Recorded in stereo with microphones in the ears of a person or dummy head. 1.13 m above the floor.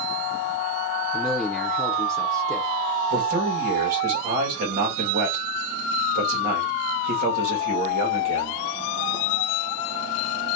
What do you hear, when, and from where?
1.1 s a man speaking: centre (ahead or behind), 0.5 m
3.1 s a man speaking: 40° right (ahead or behind), 1.2 m